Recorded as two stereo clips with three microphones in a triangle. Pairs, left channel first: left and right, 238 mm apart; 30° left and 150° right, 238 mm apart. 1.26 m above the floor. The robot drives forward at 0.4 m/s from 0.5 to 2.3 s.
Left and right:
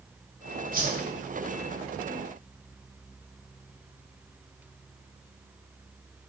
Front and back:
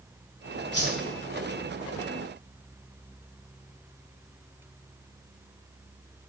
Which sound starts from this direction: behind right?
A whoosh, at 0.7 s.